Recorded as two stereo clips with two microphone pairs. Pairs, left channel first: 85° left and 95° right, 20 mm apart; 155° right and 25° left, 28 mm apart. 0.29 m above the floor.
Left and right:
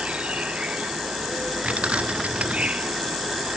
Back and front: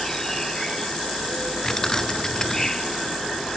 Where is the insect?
80° right.